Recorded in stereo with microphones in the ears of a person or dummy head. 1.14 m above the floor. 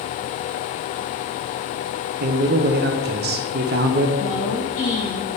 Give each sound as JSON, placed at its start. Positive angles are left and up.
{"t": 2.2, "sound": "a man speaking", "side_deg": -50, "distance_m": 0.7}
{"t": 4.2, "sound": "a woman speaking", "side_deg": 40, "distance_m": 1.4}